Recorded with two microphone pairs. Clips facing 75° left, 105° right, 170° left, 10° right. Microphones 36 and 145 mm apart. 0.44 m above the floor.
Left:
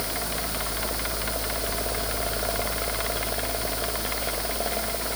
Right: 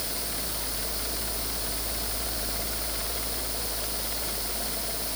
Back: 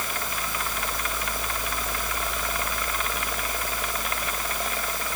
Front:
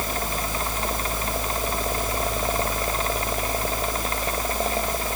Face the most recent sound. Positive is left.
No sound to turn to.